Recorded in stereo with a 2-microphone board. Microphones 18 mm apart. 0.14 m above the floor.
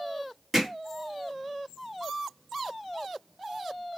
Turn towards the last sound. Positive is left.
turn(degrees=-10)  # may be behind; listen again after turning